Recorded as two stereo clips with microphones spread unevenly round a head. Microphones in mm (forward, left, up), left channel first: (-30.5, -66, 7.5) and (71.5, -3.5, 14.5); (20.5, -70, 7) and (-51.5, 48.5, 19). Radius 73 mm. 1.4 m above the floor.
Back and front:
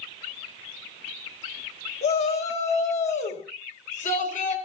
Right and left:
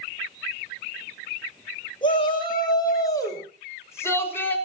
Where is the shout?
115° right, 7 m; by 4.6 s 135° right, 6.5 m.